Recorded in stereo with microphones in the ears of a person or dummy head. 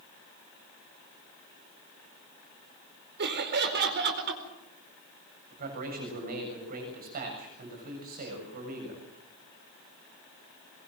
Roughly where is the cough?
No cough in this recording.